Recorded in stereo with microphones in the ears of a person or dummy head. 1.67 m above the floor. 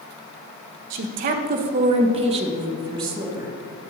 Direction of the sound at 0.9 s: 50° right (ahead or behind).